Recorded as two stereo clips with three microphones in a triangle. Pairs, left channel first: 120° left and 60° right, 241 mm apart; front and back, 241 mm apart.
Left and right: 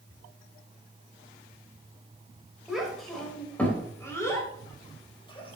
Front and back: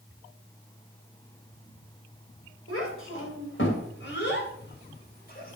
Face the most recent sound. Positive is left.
turn(degrees=50)